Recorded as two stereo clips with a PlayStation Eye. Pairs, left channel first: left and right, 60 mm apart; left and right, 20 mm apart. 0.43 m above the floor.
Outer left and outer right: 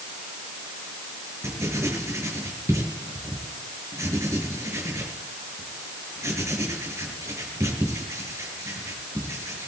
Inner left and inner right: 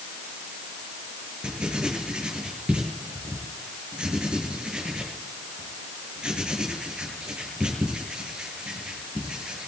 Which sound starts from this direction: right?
Writing, at 1.4 s.